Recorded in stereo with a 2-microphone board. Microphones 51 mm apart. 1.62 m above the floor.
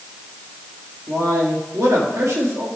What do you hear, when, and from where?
1.1 s a man speaking: 80° right, 3.5 m